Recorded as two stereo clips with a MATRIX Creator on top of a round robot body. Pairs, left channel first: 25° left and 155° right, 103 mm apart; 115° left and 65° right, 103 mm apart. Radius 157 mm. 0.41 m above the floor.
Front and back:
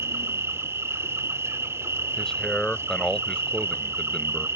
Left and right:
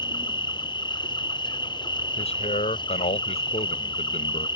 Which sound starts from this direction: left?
A man speaking, at 2.2 s.